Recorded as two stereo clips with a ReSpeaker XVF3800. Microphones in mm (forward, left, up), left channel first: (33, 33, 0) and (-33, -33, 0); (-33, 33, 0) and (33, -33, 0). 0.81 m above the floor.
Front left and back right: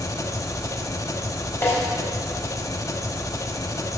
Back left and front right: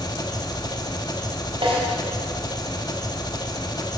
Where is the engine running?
95° left, 1.0 m.